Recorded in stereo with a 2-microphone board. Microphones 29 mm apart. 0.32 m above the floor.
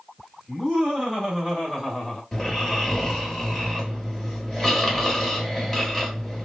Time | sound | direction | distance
0.5 | laughter | 10° right (ahead or behind) | 1.9 m
2.3 | snoring | 10° left (ahead or behind) | 1.4 m